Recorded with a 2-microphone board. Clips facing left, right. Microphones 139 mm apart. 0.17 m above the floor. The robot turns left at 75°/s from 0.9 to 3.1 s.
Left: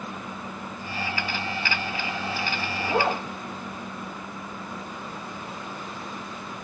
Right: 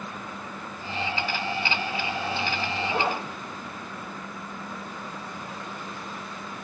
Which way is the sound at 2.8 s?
55° left (ahead or behind).